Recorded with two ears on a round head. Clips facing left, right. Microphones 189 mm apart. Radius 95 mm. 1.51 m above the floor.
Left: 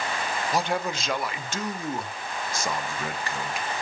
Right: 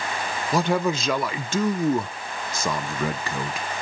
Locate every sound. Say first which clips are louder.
0.5 s a man speaking: right 6 dB; 70° right (ahead or behind), 1.2 m